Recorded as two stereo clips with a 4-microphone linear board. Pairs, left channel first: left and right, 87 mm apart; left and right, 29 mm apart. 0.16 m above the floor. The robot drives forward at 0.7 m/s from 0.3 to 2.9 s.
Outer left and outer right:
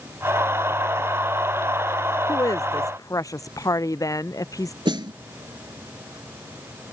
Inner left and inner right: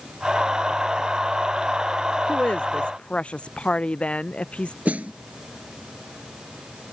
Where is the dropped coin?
I don't hear a dropped coin.